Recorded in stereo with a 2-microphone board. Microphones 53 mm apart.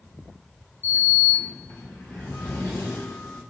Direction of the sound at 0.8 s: 50° left (ahead or behind).